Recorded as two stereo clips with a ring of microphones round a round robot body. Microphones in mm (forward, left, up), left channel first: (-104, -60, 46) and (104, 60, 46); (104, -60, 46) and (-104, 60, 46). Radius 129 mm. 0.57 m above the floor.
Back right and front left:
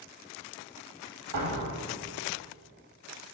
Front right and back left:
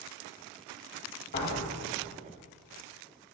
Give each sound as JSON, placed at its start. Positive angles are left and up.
{"t": 1.3, "sound": "a door slam", "azimuth_deg": 20, "distance_m": 3.5}